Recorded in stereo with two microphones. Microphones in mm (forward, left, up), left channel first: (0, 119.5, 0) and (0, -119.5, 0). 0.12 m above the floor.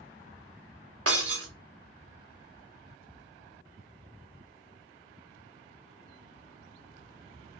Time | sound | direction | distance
1.1 | breaking glass | 70° right (ahead or behind) | 2 m